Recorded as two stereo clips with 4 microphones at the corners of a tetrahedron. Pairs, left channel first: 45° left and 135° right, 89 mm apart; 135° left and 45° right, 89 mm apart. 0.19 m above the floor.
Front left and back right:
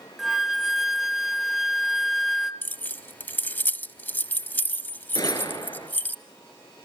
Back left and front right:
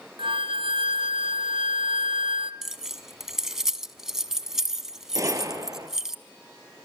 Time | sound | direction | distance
0.2 | a flute | 50° right | 0.9 m
2.6 | keys jangling | 30° left | 0.7 m
5.2 | a gunshot | 5° left | 2.5 m